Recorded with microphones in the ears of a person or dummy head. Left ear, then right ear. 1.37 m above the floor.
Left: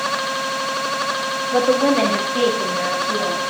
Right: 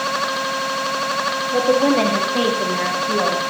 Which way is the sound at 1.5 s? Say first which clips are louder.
Even; 20° left (ahead or behind).